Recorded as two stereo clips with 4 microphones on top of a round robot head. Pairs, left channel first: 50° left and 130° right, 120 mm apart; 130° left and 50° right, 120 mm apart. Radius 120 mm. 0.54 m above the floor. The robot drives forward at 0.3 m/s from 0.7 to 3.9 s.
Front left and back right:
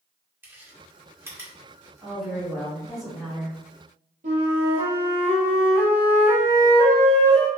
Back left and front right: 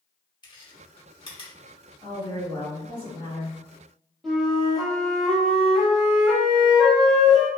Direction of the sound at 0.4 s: 160° left.